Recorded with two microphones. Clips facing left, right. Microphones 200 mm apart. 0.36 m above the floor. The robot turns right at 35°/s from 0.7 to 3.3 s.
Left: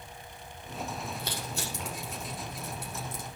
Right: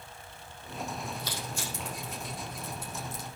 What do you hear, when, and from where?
1.2 s crushing: 55° left (ahead or behind), 6 m